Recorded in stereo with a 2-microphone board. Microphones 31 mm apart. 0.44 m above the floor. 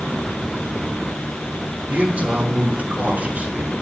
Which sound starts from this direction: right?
A man speaking, at 1.9 s.